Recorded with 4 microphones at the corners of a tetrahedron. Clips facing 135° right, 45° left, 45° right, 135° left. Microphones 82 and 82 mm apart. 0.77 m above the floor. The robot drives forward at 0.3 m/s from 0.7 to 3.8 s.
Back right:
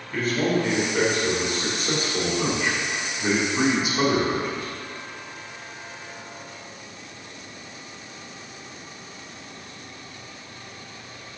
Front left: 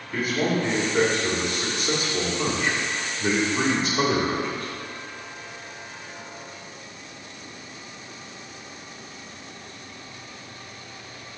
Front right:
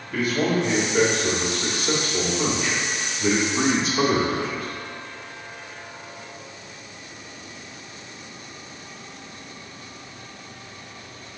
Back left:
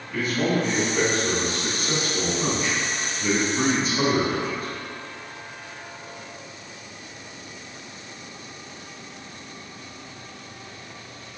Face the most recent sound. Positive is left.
turn(degrees=-60)